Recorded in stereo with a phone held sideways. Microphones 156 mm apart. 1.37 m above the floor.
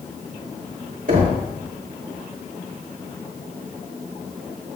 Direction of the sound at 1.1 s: 60° right (ahead or behind).